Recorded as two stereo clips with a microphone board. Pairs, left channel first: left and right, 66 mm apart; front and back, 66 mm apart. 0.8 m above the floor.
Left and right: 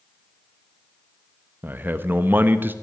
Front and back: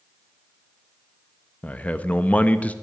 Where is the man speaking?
55° right, 0.8 m.